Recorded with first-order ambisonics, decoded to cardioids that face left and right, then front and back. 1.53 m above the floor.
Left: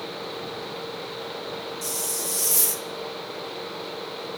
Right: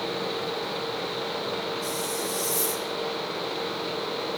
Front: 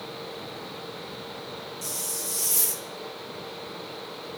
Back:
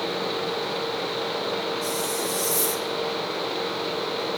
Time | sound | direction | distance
1.8 | a hiss | 60° left | 1.8 m